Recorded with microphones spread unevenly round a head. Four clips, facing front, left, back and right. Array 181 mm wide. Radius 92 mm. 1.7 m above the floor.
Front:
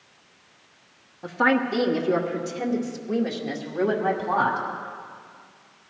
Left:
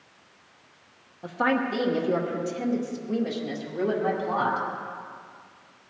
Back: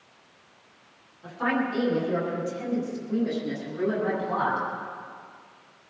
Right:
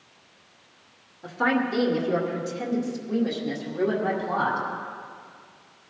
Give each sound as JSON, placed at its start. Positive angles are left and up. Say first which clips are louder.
{"t": 1.2, "sound": "a woman speaking", "louder": "right 1 dB, front 5 dB", "azimuth_deg": 30, "distance_m": 2.0}